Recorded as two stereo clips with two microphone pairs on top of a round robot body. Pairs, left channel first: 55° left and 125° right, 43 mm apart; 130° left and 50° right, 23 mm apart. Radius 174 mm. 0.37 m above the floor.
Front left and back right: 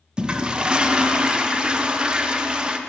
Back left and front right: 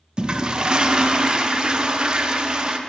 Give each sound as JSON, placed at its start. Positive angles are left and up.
{"t": 0.2, "sound": "a toilet flushing", "azimuth_deg": -80, "distance_m": 0.6}